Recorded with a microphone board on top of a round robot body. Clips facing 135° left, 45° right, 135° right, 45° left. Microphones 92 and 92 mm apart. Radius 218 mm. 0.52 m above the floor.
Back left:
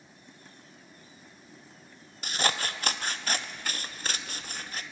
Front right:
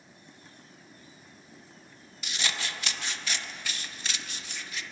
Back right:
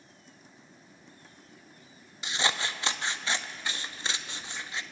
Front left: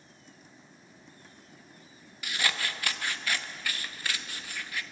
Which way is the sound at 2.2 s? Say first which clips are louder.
Back left 5 dB, back right 2 dB; 165° left.